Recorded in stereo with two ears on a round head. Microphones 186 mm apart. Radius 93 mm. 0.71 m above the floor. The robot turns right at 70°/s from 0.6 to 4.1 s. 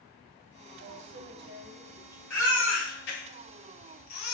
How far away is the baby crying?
About 2.5 m.